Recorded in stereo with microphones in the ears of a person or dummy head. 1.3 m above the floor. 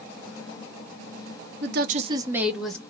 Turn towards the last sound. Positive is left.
turn(degrees=5)  # may be behind; listen again after turning